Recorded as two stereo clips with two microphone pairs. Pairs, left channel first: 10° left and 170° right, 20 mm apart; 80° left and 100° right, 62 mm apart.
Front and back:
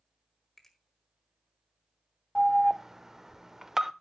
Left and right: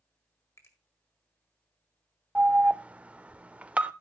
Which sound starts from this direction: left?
A finger snap, at 0.6 s.